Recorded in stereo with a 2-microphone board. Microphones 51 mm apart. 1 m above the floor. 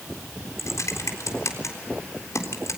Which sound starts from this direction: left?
Typing on a keyboard, at 0.6 s.